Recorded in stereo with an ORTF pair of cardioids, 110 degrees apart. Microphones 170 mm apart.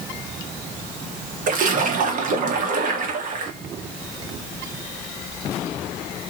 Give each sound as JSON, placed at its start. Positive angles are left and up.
{"t": 1.5, "sound": "a splash", "azimuth_deg": -55, "distance_m": 0.7}